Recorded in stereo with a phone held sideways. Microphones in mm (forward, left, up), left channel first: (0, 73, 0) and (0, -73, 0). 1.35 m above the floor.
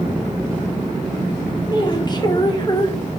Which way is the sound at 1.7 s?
30° left (ahead or behind).